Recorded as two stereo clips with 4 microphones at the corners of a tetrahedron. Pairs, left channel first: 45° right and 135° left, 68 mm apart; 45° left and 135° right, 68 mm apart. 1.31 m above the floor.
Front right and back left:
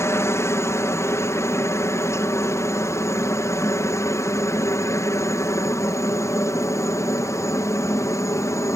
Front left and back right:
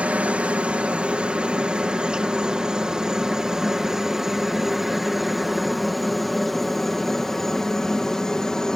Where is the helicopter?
70° right; by 8.8 s 35° right.